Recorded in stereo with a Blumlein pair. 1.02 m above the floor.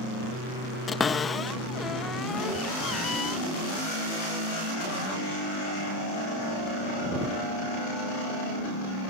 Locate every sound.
0.9 s a cupboard door: 15° left